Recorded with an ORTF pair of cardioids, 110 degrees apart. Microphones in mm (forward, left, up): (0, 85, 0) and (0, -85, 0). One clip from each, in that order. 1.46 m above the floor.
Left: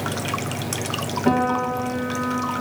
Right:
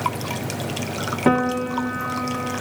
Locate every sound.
1.3 s a piano: 45° right, 1.0 m